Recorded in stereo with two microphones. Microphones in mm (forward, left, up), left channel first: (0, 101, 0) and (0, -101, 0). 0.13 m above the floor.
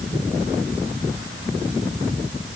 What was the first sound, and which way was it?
Only background noise.